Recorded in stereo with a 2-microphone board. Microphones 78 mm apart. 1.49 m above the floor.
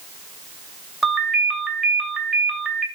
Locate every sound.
1.0 s a ringtone: 5° right (ahead or behind), 2.5 m